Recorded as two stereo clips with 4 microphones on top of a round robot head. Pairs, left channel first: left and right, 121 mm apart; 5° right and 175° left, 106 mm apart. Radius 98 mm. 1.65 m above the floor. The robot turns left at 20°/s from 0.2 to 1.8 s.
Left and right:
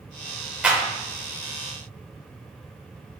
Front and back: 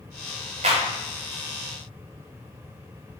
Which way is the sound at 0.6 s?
165° right.